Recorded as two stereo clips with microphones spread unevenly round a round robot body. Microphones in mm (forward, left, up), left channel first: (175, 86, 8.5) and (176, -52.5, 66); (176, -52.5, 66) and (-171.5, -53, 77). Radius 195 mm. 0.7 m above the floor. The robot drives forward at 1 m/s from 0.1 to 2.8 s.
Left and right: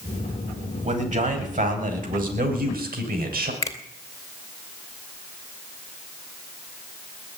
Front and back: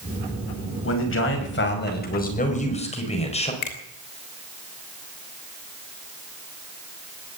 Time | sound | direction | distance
0.8 | a man speaking | 50° right | 5.5 m
3.6 | a finger snap | 30° left | 2.5 m